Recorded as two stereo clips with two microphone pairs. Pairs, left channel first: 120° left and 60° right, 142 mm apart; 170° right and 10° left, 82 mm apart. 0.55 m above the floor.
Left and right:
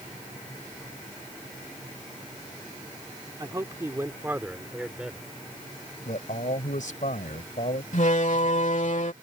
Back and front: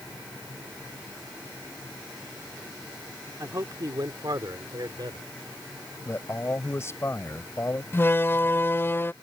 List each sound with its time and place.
3.4 s a man speaking: 10° right; by 5.2 s 25° left
6.0 s a man speaking: 135° left
7.9 s a door slam: 130° left